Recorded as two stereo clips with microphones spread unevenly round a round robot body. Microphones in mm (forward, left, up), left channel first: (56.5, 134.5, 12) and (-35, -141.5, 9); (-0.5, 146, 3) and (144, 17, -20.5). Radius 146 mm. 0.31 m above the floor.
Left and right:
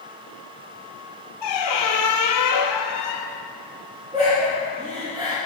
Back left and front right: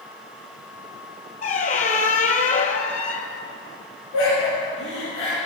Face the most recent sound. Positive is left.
turn(degrees=175)